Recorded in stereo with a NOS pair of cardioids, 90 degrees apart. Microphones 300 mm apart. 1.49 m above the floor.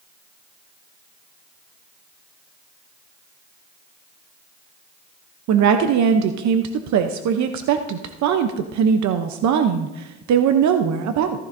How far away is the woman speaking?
About 0.8 m.